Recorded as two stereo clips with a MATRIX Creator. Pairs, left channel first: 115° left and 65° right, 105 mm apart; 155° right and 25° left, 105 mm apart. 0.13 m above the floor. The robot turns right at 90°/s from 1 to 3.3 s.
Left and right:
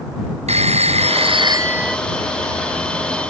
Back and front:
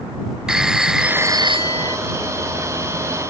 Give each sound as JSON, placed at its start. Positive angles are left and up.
{"t": 0.5, "sound": "a phone ringing", "azimuth_deg": -65}